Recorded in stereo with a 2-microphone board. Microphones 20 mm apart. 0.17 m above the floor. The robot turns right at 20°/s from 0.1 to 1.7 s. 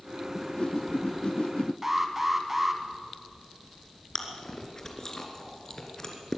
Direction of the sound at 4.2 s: 25° left (ahead or behind).